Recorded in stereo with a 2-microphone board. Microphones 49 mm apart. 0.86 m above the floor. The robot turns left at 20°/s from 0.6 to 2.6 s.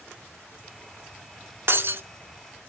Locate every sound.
1.7 s breaking glass: 55° right (ahead or behind), 0.7 m; by 2.0 s 50° right (ahead or behind), 0.7 m